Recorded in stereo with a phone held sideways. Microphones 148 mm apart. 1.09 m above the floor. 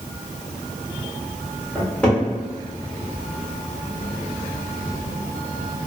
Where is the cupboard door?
5° left (ahead or behind), 1.6 m.